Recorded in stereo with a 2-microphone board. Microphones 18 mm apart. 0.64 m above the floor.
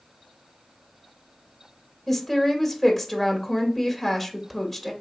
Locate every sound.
2.1 s a woman speaking: centre (ahead or behind), 1.4 m